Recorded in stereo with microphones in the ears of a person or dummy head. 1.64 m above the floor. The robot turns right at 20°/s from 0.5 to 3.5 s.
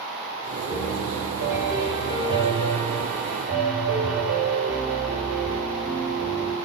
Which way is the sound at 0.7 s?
170° left.